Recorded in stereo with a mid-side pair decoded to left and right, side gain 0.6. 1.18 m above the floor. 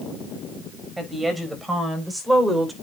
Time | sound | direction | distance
1.0 | a woman speaking | 10° right | 7 m